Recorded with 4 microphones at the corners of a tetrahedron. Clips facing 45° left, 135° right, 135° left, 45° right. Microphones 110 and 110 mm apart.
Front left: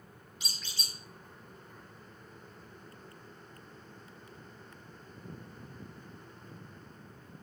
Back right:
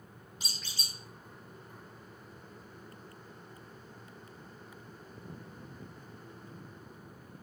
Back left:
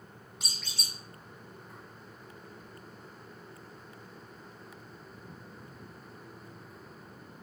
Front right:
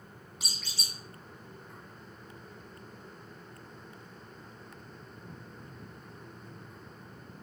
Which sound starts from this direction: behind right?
A squeak, at 0.4 s.